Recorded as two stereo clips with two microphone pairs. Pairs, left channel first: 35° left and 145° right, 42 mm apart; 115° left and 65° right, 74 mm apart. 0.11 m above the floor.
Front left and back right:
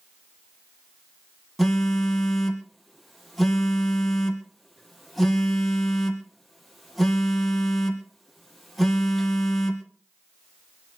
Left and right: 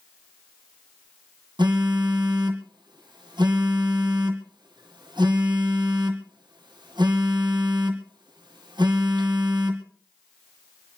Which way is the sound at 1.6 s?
55° right.